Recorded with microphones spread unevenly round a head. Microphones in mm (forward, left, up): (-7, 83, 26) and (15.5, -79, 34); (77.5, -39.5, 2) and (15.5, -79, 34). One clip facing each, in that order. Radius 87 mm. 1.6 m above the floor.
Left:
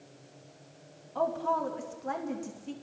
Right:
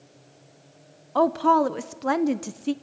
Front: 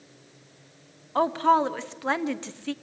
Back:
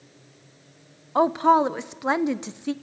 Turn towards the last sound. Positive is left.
turn(degrees=-80)